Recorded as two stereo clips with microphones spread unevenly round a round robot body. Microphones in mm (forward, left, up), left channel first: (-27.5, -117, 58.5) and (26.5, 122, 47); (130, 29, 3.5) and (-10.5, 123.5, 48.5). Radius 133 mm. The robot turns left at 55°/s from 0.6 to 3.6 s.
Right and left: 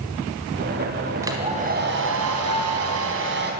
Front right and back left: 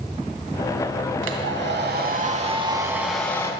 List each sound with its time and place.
1.2 s a hair dryer: 155° left, 3.5 m; by 3.5 s 30° left, 3.5 m